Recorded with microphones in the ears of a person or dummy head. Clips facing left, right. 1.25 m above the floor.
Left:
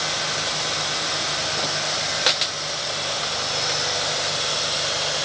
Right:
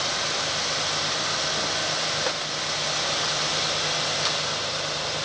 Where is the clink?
I don't hear a clink.